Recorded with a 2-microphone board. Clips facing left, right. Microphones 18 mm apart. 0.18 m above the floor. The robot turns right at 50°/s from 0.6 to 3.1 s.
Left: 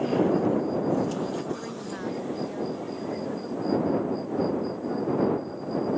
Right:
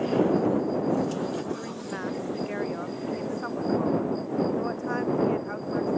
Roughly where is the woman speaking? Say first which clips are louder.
Right 1 dB; behind.